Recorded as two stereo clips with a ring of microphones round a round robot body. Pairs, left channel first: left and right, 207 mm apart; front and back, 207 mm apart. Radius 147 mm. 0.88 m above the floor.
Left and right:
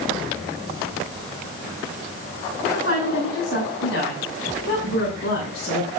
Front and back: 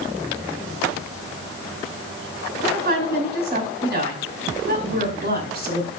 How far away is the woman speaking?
About 5.5 m.